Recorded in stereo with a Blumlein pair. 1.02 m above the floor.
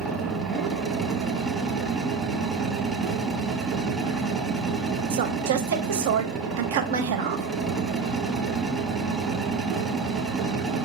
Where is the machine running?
10° right, 1.0 m.